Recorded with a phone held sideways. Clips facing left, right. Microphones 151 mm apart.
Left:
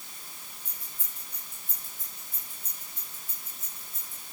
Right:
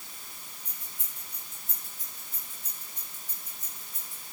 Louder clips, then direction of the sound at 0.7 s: Even; 80° right.